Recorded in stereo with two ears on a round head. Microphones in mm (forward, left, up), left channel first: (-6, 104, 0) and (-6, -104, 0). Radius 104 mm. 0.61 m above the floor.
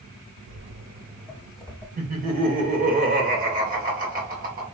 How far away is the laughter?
About 1.9 m.